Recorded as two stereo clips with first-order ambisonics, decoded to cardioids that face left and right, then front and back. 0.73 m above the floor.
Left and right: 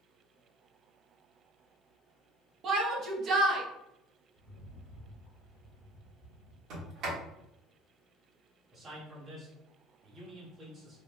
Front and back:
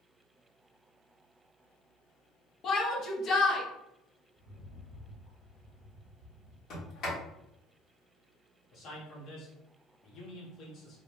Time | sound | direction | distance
2.6 | a shout | 45° right | 0.8 m
4.4 | a rattle | 115° left | 1.4 m
6.7 | a sliding door | 45° right | 1.4 m
8.7 | a man speaking | 30° right | 1.2 m